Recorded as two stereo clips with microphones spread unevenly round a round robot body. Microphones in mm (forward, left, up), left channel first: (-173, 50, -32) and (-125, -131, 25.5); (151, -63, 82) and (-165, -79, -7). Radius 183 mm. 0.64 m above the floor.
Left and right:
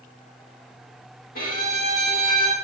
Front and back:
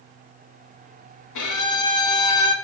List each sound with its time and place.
1.4 s a violin: 45° left, 0.7 m